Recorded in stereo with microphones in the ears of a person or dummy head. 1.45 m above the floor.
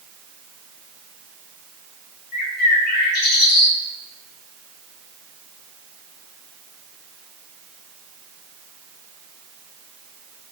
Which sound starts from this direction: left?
A bird, at 2.3 s.